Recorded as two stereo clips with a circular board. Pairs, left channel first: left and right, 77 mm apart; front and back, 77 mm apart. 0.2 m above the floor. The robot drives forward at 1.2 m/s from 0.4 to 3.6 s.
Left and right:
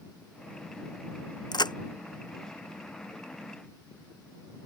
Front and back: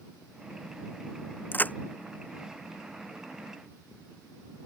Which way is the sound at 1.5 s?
65° left.